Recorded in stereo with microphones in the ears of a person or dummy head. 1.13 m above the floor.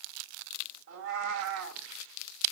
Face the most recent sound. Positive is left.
turn(degrees=-75)  # may be behind; listen again after turning